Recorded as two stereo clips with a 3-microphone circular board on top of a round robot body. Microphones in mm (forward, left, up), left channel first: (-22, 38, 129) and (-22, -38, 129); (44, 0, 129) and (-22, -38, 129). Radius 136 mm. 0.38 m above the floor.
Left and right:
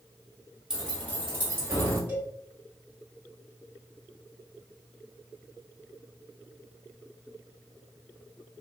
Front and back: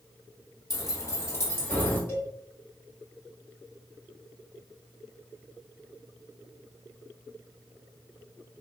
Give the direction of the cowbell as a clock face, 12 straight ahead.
1 o'clock.